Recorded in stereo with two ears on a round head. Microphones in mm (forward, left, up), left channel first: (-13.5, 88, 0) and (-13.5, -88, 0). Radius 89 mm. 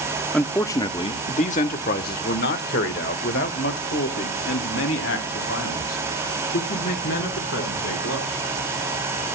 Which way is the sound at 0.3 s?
5° left (ahead or behind).